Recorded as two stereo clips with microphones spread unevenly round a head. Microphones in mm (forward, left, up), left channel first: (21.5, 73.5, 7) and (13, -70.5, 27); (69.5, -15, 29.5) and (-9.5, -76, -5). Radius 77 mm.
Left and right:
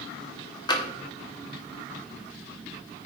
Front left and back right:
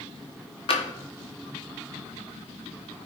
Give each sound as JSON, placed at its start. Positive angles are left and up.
{"t": 0.7, "sound": "tapping", "azimuth_deg": 25, "distance_m": 1.2}